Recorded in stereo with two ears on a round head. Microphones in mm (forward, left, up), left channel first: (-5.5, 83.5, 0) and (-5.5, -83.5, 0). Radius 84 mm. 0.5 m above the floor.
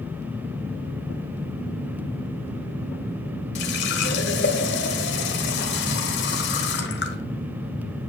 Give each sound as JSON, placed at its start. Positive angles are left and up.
{"t": 3.5, "sound": "a running tap", "side_deg": 65, "distance_m": 1.5}